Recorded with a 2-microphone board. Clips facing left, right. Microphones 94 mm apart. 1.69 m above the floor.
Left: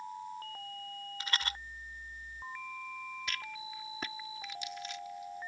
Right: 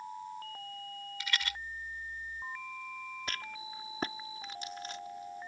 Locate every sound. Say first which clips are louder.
1.2 s a rattle: even; 40° left (ahead or behind)
3.3 s a rattle: even; 40° right (ahead or behind)